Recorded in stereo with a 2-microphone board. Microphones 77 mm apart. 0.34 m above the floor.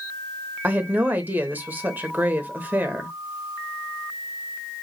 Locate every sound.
0.6 s a woman speaking: 25° right (ahead or behind), 1.0 m